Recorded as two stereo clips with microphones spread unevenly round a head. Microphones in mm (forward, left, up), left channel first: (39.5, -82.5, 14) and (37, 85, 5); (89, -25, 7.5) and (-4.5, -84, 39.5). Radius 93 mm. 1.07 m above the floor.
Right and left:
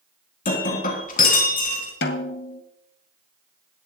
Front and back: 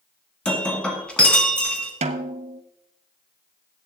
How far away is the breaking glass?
About 2.5 m.